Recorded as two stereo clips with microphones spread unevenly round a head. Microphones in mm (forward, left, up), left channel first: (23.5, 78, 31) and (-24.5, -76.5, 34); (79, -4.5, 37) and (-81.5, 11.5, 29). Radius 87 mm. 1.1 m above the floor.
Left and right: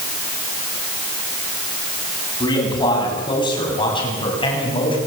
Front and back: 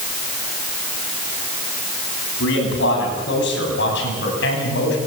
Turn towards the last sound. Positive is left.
turn(degrees=15)